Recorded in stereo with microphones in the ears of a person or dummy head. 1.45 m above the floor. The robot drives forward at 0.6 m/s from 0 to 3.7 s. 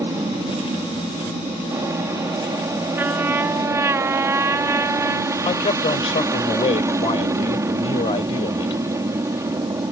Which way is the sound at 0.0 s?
15° right (ahead or behind).